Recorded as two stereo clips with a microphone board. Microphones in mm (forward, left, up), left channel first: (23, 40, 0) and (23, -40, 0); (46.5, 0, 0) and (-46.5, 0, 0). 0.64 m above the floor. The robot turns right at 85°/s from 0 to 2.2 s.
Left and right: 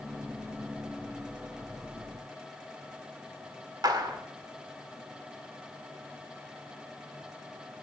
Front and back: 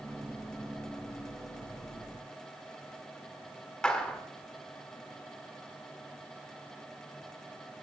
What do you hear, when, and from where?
3.8 s a clap: 80° right, 2 m